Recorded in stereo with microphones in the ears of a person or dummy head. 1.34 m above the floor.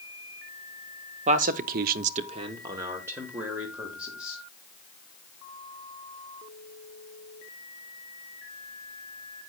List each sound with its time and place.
1.3 s a man speaking: 35° right (ahead or behind), 0.7 m; by 4.4 s centre (ahead or behind), 2 m